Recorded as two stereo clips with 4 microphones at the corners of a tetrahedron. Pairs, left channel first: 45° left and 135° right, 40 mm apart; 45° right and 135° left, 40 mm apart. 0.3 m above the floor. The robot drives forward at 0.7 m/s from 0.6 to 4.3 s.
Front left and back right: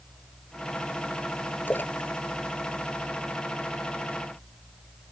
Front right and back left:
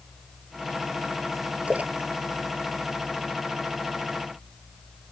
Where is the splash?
80° left; by 3.7 s 95° left.